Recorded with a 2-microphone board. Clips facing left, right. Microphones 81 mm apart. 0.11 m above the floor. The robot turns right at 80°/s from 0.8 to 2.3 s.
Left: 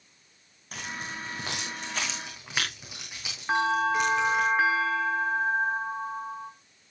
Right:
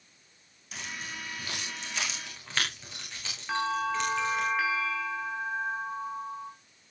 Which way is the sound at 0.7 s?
45° left (ahead or behind).